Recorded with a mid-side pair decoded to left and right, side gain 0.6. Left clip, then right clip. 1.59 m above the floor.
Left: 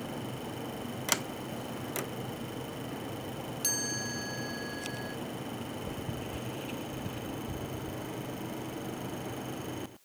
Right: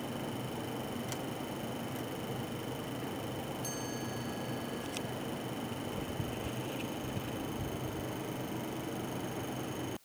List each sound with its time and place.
1.1 s a sliding door: 65° left
3.6 s a chime: 55° left